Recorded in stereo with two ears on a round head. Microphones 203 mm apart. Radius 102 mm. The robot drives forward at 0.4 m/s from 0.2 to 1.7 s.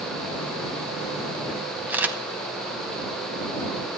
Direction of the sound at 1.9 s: 5° right (ahead or behind).